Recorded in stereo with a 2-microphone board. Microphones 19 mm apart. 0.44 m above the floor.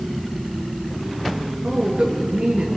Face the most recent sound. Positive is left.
turn(degrees=-80)